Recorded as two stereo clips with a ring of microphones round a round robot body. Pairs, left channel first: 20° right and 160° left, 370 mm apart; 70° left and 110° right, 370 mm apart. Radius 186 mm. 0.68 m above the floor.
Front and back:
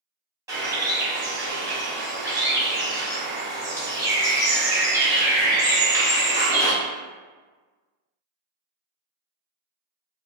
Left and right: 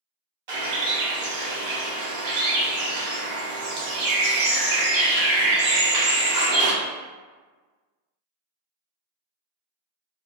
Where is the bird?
120° right, 1.1 m.